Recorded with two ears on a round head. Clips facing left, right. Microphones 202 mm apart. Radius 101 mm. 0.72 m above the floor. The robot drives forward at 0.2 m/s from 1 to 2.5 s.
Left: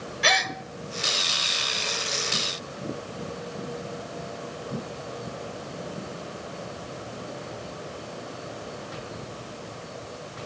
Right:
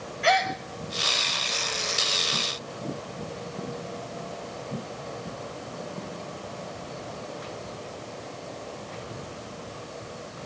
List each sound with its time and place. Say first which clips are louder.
0.2 s a gasp: right 5 dB; 50° left (ahead or behind), 0.7 m